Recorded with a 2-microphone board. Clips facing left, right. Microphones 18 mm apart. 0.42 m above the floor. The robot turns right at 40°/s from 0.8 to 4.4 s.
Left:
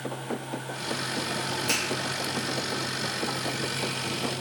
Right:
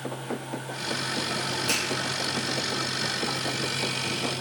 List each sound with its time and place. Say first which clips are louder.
1.7 s a finger snap: even; 15° right (ahead or behind), 1.9 m